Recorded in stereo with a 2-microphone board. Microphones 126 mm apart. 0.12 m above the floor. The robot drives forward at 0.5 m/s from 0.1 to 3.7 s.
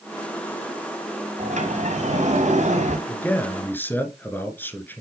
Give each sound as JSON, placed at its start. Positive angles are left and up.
{"t": 1.4, "sound": "a sliding door", "side_deg": -65, "distance_m": 4.5}
{"t": 3.1, "sound": "a man speaking", "side_deg": 15, "distance_m": 1.8}